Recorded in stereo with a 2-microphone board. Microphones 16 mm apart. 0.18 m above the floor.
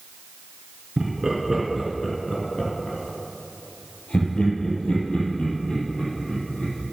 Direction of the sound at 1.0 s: 25° right (ahead or behind).